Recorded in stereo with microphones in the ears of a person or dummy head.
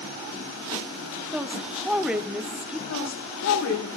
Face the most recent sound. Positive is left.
turn(degrees=75)  # may be behind; listen again after turning